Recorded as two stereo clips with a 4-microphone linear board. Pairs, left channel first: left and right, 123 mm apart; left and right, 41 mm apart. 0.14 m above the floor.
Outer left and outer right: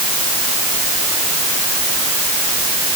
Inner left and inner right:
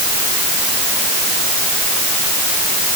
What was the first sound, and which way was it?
Only background noise.